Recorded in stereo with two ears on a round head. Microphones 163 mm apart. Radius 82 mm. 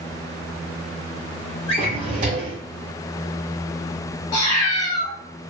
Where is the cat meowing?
20° left (ahead or behind), 1.1 m.